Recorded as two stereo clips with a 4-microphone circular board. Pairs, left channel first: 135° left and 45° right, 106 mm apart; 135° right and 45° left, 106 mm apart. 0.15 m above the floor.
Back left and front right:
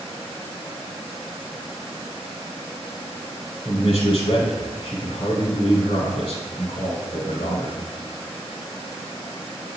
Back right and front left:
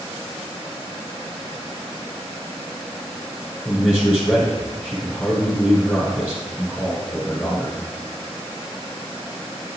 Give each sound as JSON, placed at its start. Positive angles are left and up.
{"t": 3.6, "sound": "a man speaking", "azimuth_deg": 125, "distance_m": 1.9}